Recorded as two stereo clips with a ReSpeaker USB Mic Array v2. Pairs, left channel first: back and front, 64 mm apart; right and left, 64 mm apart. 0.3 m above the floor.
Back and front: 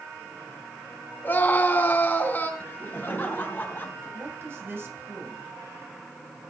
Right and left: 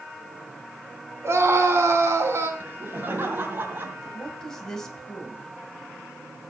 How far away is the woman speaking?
About 1.9 m.